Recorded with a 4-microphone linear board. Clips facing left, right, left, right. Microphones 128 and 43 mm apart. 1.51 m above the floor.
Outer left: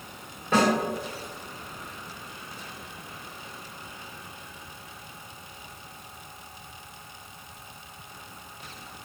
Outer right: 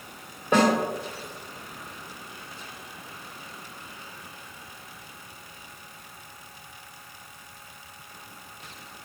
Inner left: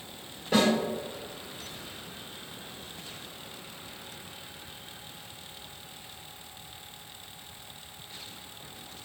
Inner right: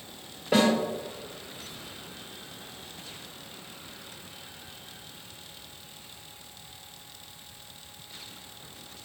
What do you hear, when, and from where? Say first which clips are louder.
0.5 s a snare drum: outer right 2 dB, inner right 2 dB; 15° right (ahead or behind), 1.3 m